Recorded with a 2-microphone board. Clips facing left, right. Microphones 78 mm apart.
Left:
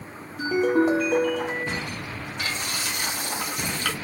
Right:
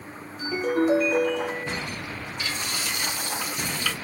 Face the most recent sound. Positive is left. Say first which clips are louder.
# left 2 dB
turn(degrees=60)  # may be behind; listen again after turning